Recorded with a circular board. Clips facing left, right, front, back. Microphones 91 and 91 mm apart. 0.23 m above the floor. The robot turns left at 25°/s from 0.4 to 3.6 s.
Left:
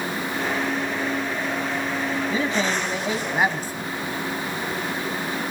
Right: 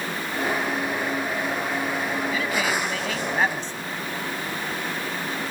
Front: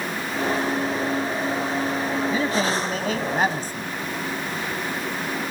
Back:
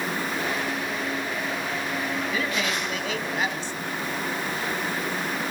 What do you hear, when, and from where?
2.3 s a man speaking: 45° left, 1.9 m; by 3.9 s 15° left, 1.9 m